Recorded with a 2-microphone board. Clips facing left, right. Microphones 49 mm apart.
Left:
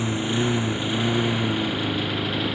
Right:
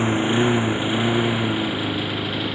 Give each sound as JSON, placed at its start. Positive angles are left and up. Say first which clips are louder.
{"t": 0.0, "sound": "a lawn mower", "louder": "right 5 dB", "side_deg": -30}